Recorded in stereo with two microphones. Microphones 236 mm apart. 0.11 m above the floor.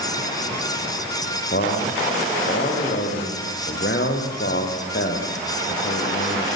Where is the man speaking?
55° left (ahead or behind), 7 m.